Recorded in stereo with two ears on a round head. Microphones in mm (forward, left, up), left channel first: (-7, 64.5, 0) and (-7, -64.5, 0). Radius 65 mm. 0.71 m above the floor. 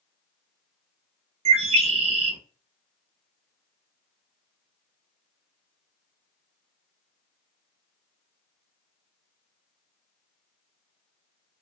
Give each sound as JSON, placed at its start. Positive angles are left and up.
{"t": 1.4, "sound": "a bird", "side_deg": -45, "distance_m": 0.7}